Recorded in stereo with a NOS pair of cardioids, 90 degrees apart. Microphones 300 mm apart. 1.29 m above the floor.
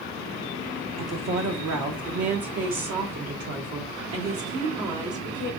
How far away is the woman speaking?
About 1.2 m.